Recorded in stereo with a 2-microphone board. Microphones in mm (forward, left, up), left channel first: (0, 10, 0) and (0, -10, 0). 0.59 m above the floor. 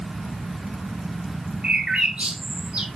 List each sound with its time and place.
1.6 s a bird: 65° right (ahead or behind), 1.3 m